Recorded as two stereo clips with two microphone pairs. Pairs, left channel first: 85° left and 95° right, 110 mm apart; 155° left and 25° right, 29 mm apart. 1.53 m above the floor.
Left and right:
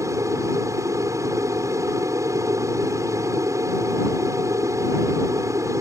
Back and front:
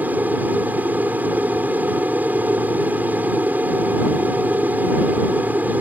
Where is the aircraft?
30° right.